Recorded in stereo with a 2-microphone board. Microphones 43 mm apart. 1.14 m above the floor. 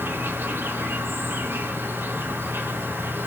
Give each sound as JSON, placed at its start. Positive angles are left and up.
{"t": 0.0, "sound": "an insect", "side_deg": -50, "distance_m": 0.9}